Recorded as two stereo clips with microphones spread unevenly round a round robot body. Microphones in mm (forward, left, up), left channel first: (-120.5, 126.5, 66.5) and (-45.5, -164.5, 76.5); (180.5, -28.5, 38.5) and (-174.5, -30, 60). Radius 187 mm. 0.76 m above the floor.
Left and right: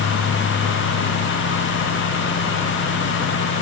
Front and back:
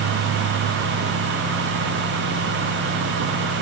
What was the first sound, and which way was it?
Only background noise.